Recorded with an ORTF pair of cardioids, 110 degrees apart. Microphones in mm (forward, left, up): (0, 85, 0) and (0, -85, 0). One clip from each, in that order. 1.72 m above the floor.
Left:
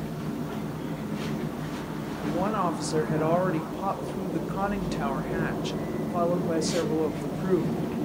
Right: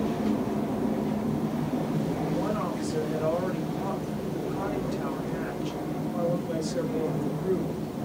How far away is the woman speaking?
About 0.6 m.